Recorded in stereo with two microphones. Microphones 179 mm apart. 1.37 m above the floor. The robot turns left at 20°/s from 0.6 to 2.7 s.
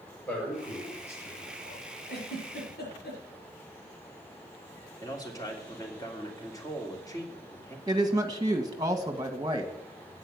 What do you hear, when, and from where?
0.3 s a man speaking: 5° left (ahead or behind), 8.5 m; by 1.9 s 35° left (ahead or behind), 8.5 m
2.1 s a giggle: 70° left (ahead or behind), 4.5 m; by 3.2 s 75° left (ahead or behind), 4.5 m
5.0 s a man speaking: 20° left (ahead or behind), 3 m
7.9 s a woman speaking: 25° right (ahead or behind), 1.8 m